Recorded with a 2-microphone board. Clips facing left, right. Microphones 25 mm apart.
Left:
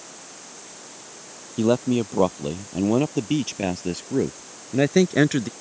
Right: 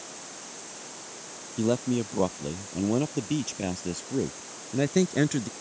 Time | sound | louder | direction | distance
1.6 | a man speaking | left 6 dB | 25° left (ahead or behind) | ?